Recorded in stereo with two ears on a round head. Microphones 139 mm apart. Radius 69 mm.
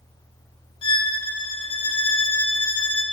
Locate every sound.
0.8 s a violin: 35° left (ahead or behind), 0.7 m